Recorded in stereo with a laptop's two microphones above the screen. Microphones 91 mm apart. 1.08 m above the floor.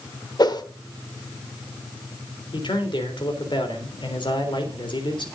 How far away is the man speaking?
About 3.5 m.